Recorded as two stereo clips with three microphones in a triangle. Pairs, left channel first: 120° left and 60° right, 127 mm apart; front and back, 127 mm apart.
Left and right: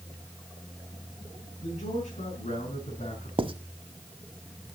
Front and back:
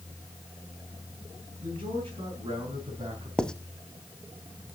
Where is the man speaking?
135° left, 5 m; by 3.3 s 140° left, 4 m.